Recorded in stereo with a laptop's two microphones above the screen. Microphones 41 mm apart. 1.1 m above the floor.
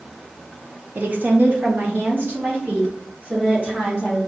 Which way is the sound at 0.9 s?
50° right (ahead or behind).